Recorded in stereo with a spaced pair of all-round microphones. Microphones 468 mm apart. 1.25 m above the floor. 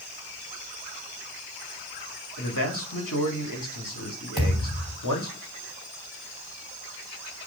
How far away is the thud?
About 3 m.